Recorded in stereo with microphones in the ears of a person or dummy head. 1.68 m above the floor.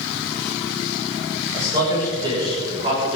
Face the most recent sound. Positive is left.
turn(degrees=-40)  # may be behind; listen again after turning